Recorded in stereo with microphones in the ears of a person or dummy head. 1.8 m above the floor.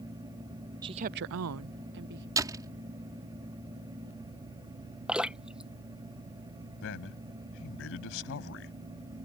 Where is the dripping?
5° right (ahead or behind).